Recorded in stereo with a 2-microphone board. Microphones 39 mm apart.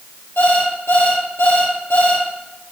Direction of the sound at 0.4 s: 85° left.